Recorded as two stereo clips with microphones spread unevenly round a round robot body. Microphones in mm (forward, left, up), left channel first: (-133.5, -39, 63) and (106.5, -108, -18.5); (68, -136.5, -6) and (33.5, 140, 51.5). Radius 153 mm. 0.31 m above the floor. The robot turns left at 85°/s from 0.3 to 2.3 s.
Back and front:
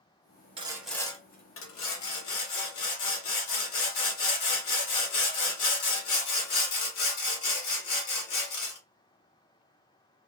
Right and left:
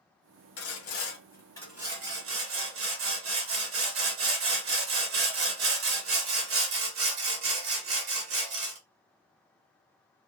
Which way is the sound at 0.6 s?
70° right.